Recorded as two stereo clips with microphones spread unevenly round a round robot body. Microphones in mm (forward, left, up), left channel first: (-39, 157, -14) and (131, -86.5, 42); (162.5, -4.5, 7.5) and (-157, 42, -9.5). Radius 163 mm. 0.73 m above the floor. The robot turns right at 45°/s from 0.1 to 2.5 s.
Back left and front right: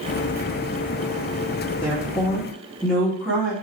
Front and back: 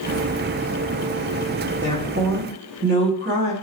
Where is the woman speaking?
165° left, 1.1 m; by 3.5 s 165° right, 1.1 m.